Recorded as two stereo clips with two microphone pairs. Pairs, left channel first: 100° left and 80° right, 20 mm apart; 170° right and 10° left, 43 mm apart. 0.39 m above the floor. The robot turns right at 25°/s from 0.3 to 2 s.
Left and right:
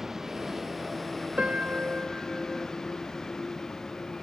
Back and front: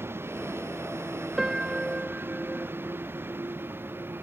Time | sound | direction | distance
0.0 | a vehicle | 5° right | ?
1.4 | a piano | 70° right | ?